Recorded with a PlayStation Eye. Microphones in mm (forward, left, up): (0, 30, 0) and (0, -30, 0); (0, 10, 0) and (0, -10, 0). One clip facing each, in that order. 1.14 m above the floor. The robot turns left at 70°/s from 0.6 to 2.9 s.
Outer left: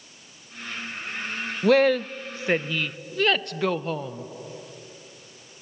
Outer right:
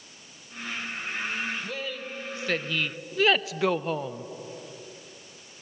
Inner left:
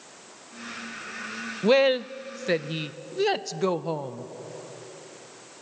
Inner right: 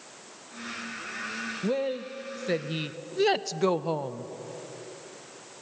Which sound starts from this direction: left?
A woman speaking, at 1.6 s.